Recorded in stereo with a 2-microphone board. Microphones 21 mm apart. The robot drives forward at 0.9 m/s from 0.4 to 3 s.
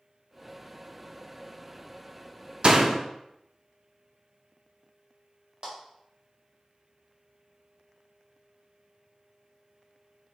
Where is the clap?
55° right (ahead or behind), 1.8 m.